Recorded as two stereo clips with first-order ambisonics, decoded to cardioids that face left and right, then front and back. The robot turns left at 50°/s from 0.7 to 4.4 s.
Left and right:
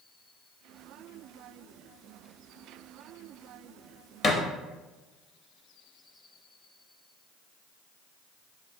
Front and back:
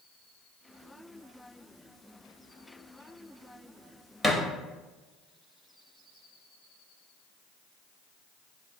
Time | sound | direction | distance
4.2 | a thud | 75° left | 0.6 m